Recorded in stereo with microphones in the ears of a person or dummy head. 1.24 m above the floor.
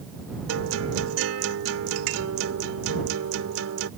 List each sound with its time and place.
0.5 s a guitar: 85° right